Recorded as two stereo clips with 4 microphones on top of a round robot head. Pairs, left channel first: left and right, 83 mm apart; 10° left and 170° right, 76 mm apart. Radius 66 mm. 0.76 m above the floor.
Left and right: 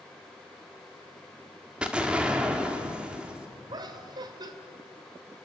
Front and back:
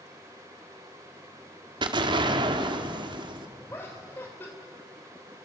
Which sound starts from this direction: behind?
An explosion, at 1.8 s.